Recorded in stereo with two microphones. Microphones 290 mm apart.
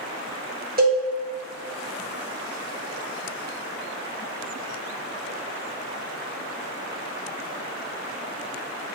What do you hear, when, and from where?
0.8 s a cowbell: 30° right (ahead or behind), 0.9 m